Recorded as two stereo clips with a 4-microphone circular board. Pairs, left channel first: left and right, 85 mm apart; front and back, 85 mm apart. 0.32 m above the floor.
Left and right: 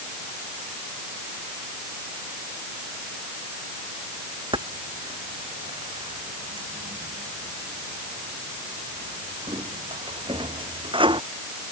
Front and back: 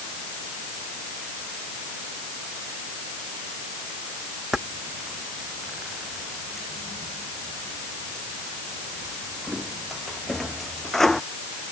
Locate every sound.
4.5 s keys jangling: 95° right; by 11.2 s 85° right